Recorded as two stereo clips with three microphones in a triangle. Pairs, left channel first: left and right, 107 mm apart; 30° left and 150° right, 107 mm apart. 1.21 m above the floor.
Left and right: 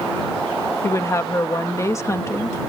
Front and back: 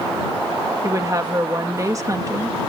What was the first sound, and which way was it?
A woman speaking, 150° left.